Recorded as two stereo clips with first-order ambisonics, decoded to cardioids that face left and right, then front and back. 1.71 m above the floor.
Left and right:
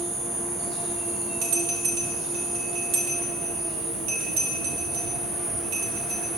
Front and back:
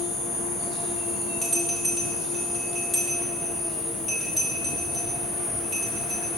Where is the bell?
85° right, 1.8 m.